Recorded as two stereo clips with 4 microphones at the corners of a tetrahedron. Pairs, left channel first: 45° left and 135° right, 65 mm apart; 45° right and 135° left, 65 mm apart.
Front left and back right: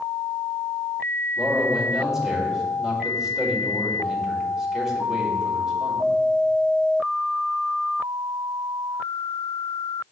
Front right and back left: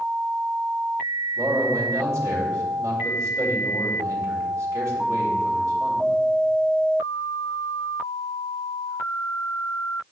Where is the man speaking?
145° left, 2 m.